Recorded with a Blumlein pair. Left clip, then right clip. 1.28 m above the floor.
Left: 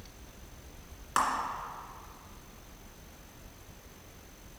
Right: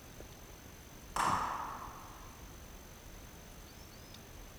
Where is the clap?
40° left, 2.0 m.